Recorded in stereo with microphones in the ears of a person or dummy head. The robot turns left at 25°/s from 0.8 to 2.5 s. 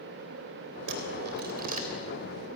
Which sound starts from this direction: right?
A dropped coin, at 0.9 s.